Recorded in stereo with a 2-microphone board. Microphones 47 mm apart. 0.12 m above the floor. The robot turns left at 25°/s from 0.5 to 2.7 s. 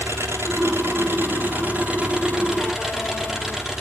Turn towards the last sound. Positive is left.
turn(degrees=-170)